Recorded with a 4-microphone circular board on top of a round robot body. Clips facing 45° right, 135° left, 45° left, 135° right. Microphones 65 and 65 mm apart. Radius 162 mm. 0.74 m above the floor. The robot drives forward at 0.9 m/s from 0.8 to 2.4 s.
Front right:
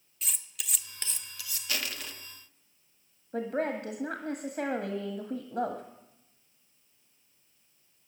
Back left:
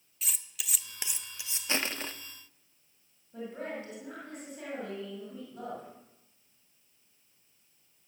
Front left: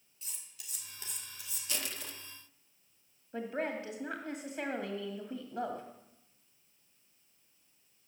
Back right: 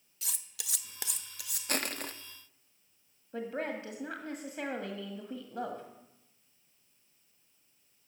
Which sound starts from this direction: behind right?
Cutlery clinking, at 0.2 s.